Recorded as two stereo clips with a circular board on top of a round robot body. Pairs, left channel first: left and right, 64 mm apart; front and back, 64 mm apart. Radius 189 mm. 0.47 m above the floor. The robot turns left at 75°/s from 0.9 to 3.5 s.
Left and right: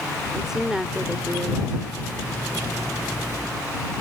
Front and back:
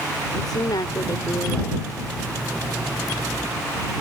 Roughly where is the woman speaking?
Ahead.